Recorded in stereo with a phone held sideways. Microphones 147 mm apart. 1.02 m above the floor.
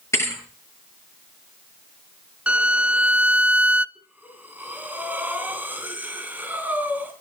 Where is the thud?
20° left (ahead or behind), 9 m.